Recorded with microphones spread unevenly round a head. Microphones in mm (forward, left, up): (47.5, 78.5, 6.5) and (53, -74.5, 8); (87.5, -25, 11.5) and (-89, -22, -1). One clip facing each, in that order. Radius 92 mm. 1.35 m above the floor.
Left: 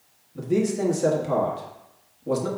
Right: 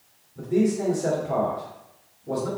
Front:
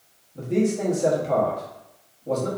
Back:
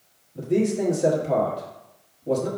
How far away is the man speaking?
About 1.2 m.